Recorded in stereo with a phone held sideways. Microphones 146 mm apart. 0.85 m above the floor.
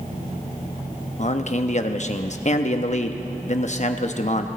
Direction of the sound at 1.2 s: 55° left (ahead or behind).